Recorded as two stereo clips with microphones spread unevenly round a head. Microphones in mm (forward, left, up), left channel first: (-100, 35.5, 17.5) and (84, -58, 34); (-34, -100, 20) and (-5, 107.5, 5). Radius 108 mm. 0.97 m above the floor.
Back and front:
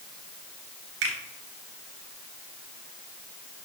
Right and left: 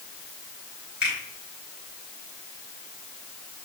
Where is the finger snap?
5° right, 4.5 m.